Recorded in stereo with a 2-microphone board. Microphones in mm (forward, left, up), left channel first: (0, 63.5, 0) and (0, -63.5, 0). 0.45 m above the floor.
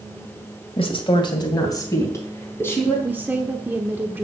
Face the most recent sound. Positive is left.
turn(degrees=-15)  # may be behind; listen again after turning